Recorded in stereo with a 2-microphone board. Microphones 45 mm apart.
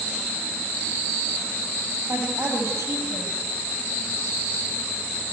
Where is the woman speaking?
70° right (ahead or behind), 6.5 m.